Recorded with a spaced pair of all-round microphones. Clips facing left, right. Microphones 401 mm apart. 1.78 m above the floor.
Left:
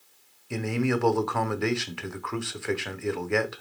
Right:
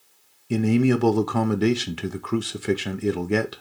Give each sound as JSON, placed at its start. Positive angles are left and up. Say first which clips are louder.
{"t": 0.5, "sound": "a man speaking", "louder": "right 7 dB", "side_deg": -50, "distance_m": 0.8}